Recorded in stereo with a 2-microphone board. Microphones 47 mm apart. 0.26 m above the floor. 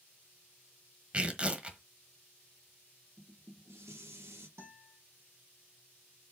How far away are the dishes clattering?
About 4 m.